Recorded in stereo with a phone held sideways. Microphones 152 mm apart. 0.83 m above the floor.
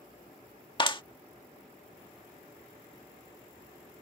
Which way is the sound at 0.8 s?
35° left (ahead or behind).